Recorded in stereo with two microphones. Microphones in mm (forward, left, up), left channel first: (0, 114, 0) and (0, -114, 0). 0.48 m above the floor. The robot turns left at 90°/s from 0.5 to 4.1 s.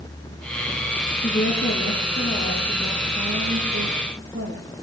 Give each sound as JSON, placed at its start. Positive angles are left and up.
{"t": 1.2, "sound": "a woman speaking", "azimuth_deg": 140, "distance_m": 9.0}